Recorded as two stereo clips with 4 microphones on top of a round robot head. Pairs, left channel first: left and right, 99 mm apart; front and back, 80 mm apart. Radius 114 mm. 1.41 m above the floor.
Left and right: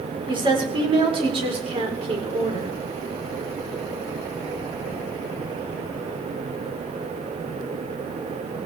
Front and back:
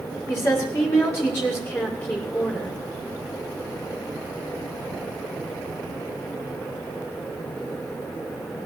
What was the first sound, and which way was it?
A woman speaking, 55° right.